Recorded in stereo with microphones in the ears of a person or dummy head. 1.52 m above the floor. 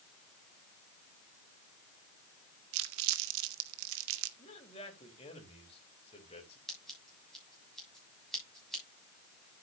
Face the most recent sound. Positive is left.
turn(degrees=0)  # may be behind; listen again after turning